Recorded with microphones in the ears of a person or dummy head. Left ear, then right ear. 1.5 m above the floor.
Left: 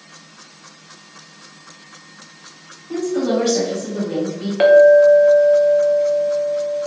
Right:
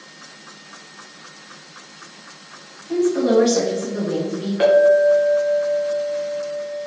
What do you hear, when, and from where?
2.9 s a woman speaking: centre (ahead or behind), 2 m
4.6 s a clink: 30° left (ahead or behind), 0.8 m